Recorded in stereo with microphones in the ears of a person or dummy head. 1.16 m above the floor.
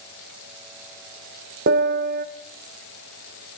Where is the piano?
65° right (ahead or behind), 1.8 m.